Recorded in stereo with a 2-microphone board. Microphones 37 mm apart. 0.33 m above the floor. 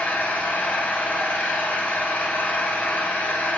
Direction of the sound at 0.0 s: 70° left (ahead or behind).